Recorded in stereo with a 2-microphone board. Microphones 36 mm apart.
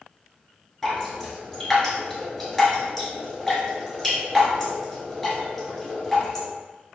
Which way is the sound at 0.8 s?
5° left (ahead or behind).